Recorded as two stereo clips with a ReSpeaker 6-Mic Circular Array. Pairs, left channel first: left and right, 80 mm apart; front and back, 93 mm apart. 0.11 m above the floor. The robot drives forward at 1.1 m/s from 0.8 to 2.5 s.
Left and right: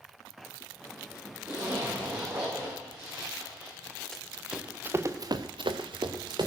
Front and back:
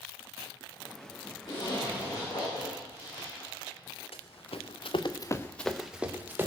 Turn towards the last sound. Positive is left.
turn(degrees=-115)